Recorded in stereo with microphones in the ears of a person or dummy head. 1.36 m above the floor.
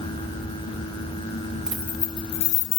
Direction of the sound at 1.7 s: 5° right (ahead or behind).